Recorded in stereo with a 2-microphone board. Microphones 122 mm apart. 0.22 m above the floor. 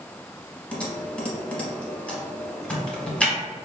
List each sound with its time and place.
0.7 s typing on a keyboard: 10° left (ahead or behind), 0.8 m